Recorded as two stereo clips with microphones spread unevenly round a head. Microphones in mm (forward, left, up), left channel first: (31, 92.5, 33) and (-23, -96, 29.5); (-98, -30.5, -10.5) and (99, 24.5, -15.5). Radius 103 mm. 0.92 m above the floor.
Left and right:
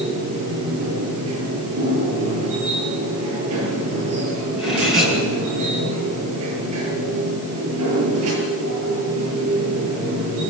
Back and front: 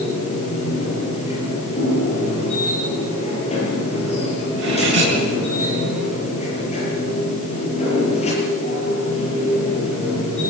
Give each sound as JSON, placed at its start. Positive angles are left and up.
{"t": 0.0, "sound": "a machine running", "azimuth_deg": -105, "distance_m": 7.5}
{"t": 4.6, "sound": "cutlery clinking", "azimuth_deg": -15, "distance_m": 7.5}